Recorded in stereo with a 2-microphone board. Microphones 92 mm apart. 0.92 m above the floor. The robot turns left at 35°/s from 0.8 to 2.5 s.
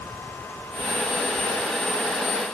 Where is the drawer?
No drawer in this recording.